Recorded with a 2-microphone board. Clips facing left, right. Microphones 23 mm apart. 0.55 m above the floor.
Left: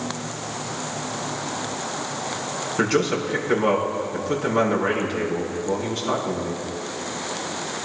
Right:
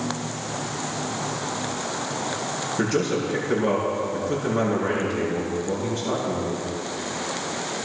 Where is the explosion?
No explosion in this recording.